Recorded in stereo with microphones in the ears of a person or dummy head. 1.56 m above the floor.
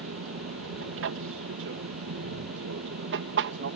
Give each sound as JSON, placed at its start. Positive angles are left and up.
{"t": 0.0, "sound": "an aircraft", "side_deg": -60}